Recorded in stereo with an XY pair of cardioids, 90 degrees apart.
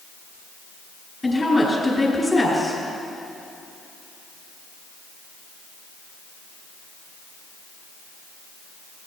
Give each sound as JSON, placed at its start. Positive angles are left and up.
{"t": 1.2, "sound": "a woman speaking", "azimuth_deg": 25, "distance_m": 4.0}